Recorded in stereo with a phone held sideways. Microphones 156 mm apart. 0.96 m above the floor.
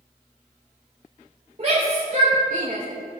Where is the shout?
45° right (ahead or behind), 3.5 m; by 2.8 s 65° right (ahead or behind), 3 m.